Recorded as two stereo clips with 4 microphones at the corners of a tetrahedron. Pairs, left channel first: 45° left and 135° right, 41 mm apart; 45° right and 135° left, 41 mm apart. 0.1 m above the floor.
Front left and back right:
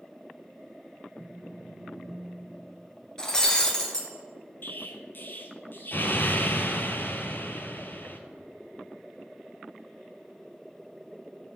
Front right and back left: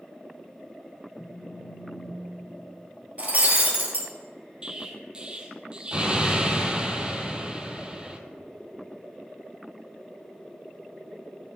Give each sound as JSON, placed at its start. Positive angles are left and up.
{"t": 1.1, "sound": "a phone buzzing", "azimuth_deg": 160, "distance_m": 3.0}
{"t": 3.2, "sound": "breaking glass", "azimuth_deg": 110, "distance_m": 1.2}
{"t": 4.6, "sound": "an explosion", "azimuth_deg": 75, "distance_m": 0.7}